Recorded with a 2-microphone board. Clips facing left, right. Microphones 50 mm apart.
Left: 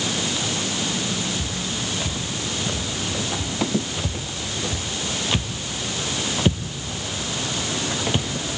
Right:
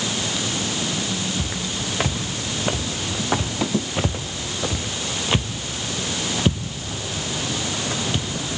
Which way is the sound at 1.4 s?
65° right (ahead or behind).